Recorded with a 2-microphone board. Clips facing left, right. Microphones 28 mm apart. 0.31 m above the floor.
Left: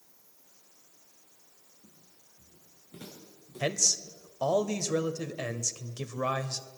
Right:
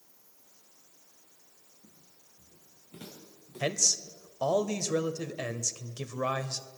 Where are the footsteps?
55° right (ahead or behind), 6.5 m; by 4.2 s 40° right (ahead or behind), 8 m.